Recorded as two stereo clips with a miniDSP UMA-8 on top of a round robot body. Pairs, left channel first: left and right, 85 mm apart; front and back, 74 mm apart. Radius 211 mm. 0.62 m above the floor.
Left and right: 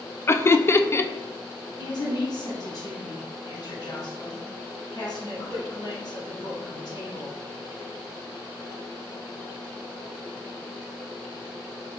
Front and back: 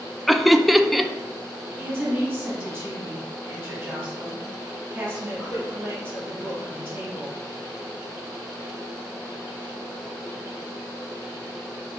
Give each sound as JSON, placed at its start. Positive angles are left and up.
{"t": 0.3, "sound": "laughter", "azimuth_deg": 90, "distance_m": 0.5}
{"t": 1.8, "sound": "a woman speaking", "azimuth_deg": 105, "distance_m": 1.8}